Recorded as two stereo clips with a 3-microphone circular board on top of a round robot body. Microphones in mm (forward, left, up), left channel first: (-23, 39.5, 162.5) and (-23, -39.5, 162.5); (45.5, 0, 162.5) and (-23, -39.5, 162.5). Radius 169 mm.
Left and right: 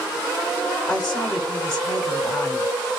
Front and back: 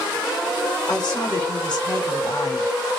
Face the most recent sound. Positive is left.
turn(degrees=10)